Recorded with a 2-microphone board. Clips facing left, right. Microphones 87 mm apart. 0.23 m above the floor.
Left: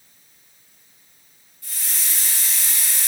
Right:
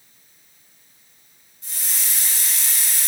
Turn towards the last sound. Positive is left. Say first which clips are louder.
# even
turn(degrees=-25)  # may be behind; listen again after turning